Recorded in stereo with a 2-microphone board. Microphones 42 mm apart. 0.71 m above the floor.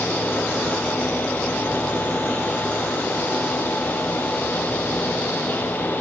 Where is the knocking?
No knocking in this recording.